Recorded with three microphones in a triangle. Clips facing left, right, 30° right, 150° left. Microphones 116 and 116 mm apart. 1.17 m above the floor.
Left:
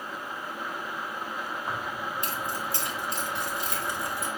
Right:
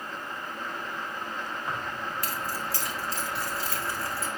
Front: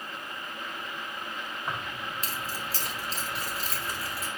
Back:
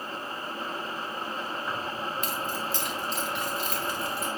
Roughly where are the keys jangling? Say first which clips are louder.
Even, back 3 dB; ahead left.